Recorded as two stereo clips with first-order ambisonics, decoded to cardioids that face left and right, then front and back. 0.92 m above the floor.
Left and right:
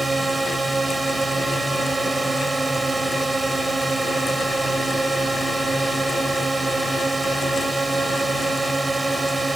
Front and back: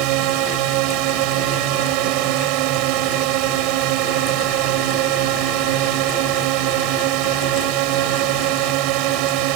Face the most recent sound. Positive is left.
turn(degrees=-165)